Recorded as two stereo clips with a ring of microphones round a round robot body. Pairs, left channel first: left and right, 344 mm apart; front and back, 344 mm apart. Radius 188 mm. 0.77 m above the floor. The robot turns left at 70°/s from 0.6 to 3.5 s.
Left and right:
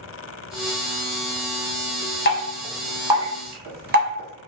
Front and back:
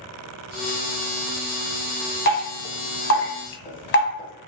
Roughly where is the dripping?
Ahead left.